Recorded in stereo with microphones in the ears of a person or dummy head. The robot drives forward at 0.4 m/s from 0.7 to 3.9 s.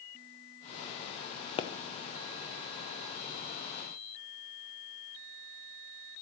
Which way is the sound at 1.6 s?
35° left (ahead or behind).